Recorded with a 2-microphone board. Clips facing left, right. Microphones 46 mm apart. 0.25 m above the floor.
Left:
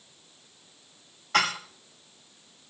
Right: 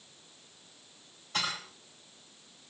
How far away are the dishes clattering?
About 3.5 m.